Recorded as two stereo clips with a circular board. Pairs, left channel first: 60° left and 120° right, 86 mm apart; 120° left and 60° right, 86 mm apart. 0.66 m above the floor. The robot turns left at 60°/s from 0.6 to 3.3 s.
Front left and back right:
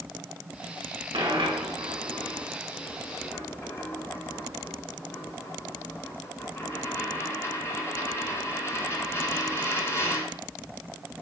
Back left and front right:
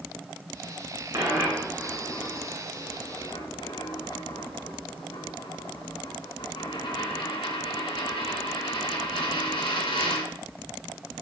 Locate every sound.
1.1 s a dropped coin: 110° right, 2 m; by 10.3 s 120° left, 2 m